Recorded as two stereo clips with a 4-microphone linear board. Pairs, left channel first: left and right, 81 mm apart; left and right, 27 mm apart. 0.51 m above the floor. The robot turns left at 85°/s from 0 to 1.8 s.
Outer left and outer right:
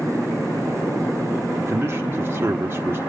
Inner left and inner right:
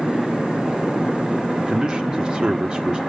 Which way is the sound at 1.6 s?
35° right (ahead or behind).